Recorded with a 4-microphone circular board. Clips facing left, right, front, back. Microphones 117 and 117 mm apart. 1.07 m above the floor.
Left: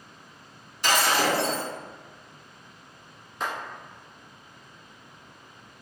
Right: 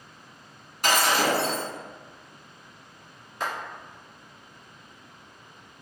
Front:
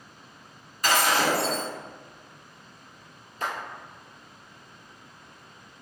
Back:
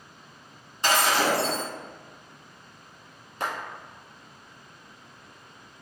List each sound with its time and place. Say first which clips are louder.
0.8 s breaking glass: right 1 dB, even; 120° right, 1.8 m
3.4 s a clap: even, back 1 dB; straight behind, 1.5 m